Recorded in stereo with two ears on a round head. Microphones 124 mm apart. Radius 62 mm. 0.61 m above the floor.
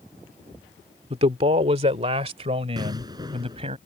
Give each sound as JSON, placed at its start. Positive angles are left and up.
{"t": 1.1, "sound": "a man speaking", "side_deg": -45}
{"t": 2.8, "sound": "an explosion", "side_deg": -30}